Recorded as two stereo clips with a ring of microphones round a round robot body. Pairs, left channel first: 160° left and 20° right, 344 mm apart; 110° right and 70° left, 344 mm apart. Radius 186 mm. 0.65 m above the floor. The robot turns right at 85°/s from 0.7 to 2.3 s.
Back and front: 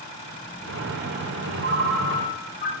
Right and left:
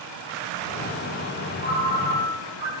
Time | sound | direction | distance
1.6 | a ringtone | 35° left | 2.5 m